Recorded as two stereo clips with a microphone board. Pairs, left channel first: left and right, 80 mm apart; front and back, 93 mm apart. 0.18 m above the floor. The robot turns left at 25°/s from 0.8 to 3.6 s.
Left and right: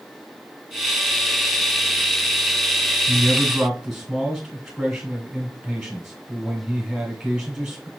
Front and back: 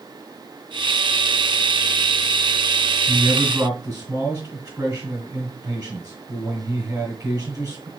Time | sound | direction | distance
3.1 | a man speaking | 160° right | 1.8 m